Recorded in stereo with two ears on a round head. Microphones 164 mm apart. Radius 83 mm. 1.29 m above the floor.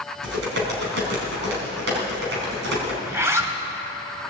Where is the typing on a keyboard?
70° right (ahead or behind), 4 m.